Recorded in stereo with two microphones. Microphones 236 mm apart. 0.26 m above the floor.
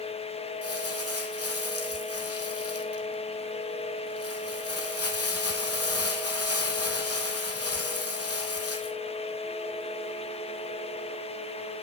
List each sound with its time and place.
0.6 s crumpling: 80° left, 1.7 m